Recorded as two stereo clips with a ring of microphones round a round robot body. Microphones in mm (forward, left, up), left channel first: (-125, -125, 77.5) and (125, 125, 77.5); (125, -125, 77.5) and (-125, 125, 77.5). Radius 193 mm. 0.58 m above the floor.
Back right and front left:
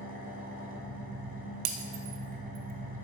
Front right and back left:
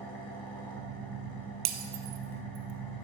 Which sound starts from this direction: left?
Breaking glass, at 1.6 s.